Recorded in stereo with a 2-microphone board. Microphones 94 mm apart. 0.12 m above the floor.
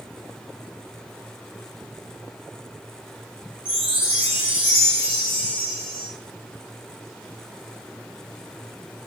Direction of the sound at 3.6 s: 20° left (ahead or behind).